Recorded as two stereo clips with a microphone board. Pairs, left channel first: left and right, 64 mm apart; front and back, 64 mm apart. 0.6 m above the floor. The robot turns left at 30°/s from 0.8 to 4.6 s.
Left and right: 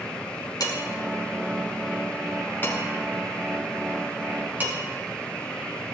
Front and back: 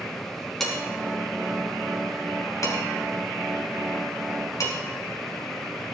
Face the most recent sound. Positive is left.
turn(degrees=-30)